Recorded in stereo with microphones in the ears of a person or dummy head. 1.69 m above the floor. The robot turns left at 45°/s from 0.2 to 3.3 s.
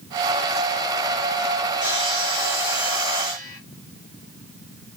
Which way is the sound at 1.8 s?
135° right.